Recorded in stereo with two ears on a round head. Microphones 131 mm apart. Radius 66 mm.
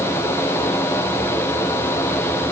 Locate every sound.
Only background noise.